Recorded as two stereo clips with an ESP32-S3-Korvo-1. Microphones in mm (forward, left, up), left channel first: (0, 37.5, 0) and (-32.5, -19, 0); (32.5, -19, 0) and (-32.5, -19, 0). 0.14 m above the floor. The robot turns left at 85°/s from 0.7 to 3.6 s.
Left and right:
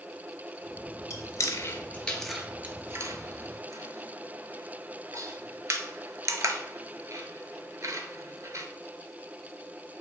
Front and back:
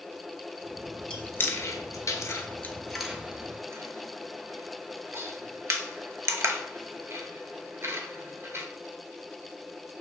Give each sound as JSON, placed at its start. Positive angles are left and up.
{"t": 1.1, "sound": "chewing", "azimuth_deg": 70, "distance_m": 0.6}